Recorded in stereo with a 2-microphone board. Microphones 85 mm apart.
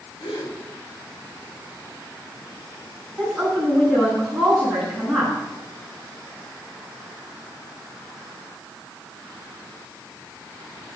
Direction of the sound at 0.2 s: 65° left (ahead or behind).